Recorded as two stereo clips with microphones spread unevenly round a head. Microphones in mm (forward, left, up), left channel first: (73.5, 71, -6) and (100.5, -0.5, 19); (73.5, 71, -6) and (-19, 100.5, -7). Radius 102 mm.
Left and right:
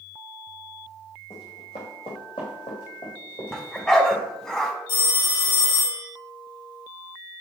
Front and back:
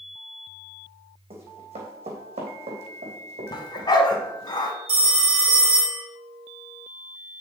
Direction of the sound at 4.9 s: 145° left.